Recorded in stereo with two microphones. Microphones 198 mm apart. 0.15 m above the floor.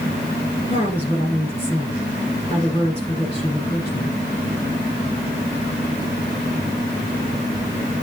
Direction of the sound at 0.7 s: 30° left (ahead or behind).